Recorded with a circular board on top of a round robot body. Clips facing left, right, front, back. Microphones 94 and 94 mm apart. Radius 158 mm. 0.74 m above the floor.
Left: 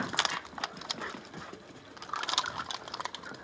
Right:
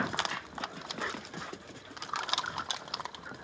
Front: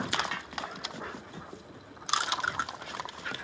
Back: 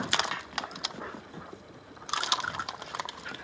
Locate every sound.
0.3 s a snare drum: 125° right, 1.9 m